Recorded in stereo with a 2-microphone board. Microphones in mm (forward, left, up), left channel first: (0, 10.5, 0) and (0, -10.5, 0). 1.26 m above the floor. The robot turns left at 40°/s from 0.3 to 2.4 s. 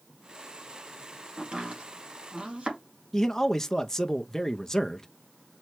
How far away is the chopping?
About 2 m.